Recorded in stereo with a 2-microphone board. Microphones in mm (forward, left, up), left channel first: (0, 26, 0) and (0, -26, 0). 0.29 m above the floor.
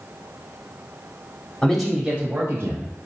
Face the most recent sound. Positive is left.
turn(degrees=-55)  # may be behind; listen again after turning